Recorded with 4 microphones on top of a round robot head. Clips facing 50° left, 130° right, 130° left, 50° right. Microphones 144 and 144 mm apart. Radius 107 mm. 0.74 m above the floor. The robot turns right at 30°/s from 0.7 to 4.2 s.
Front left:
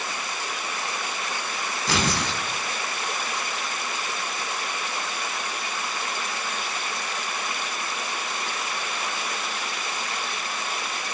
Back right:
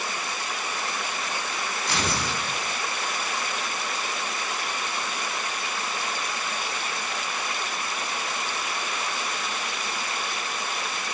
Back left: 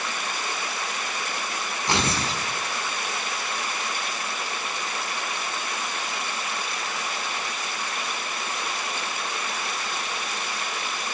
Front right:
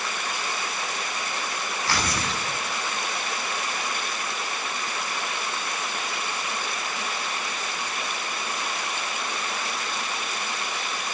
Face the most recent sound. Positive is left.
turn(degrees=130)